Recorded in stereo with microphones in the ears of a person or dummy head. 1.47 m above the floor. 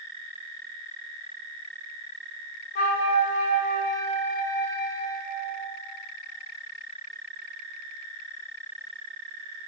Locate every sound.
2.8 s a flute: 50° left (ahead or behind), 3 m